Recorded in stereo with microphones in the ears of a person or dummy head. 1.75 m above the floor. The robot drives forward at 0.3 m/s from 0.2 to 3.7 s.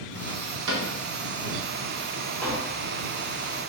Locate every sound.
0.7 s a cupboard door: 65° right (ahead or behind), 0.7 m; by 0.9 s 60° right (ahead or behind), 0.8 m
2.4 s tapping: 15° left (ahead or behind), 0.7 m; by 2.8 s 10° left (ahead or behind), 0.8 m